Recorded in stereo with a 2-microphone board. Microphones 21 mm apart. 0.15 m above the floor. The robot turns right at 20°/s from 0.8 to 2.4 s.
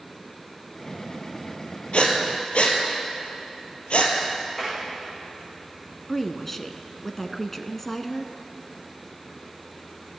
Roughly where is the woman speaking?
Centre.